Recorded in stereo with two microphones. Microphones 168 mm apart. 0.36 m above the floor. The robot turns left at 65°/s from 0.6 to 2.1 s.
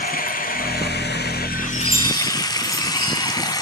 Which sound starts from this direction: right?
A chime, at 1.7 s.